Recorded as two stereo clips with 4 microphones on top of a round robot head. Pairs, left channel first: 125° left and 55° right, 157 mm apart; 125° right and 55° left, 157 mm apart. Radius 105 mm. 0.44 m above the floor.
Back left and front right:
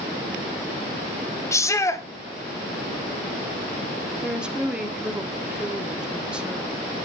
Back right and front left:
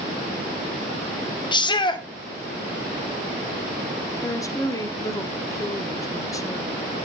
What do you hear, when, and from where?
1.5 s a shout: 170° right, 1.8 m
4.2 s a woman speaking: 125° right, 1.3 m